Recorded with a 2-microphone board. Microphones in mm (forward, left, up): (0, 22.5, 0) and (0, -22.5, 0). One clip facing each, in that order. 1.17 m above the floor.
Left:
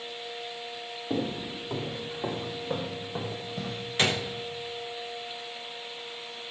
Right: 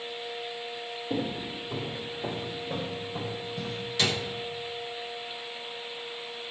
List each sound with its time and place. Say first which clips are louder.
1.1 s footsteps: left 1 dB; 70° left (ahead or behind), 3.5 m; by 3.9 s 50° left (ahead or behind), 2.5 m
4.0 s a gunshot: left 2 dB; 35° left (ahead or behind), 0.9 m